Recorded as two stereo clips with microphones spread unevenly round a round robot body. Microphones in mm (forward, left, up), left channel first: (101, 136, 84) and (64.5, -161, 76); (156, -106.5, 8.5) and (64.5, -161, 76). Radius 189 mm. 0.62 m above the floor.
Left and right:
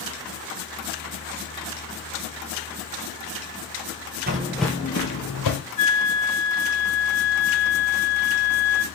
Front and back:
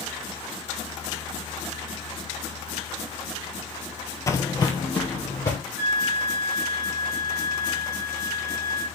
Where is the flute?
50° left, 0.6 m.